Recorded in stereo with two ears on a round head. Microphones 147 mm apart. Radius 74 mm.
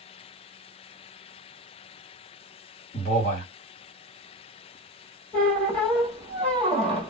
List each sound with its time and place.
2.9 s a man speaking: 45° left (ahead or behind), 1.7 m
5.3 s a squeak: 5° left (ahead or behind), 1.3 m